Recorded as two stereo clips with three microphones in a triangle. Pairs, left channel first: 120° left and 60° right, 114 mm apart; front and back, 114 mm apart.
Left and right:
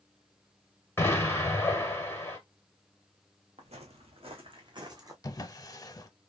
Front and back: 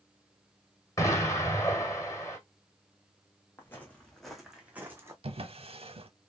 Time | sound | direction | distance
1.0 | an explosion | 55° left | 1.4 m
3.6 | footsteps | 70° right | 1.2 m
5.2 | a drawer | 175° left | 0.6 m